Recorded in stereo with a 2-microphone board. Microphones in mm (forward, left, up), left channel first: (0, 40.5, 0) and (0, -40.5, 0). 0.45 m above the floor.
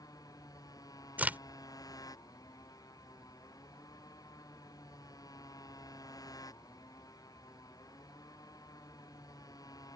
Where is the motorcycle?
50° left (ahead or behind).